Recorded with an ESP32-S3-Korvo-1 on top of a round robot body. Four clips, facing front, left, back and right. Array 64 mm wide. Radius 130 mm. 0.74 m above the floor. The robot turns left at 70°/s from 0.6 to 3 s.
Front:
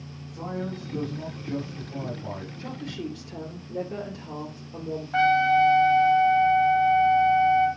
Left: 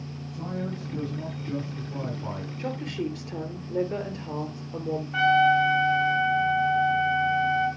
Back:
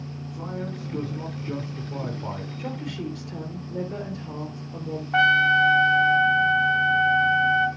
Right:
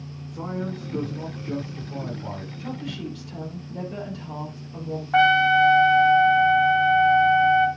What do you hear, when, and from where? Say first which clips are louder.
0.3 s a man speaking: right 3 dB, front 1 dB; 90° right, 4 m; by 2.5 s 135° left, 4 m
2.6 s a woman speaking: left 4 dB, back 3 dB; 120° left, 3 m; by 5.0 s 90° left, 3 m
5.1 s a trumpet: right 3 dB, back 2 dB; 110° right, 1.1 m